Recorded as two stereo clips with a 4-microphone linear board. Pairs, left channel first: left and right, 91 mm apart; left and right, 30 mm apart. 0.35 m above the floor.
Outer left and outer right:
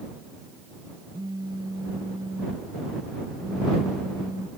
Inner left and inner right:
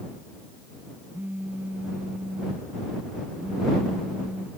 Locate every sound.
1.1 s a phone buzzing: 45° right (ahead or behind)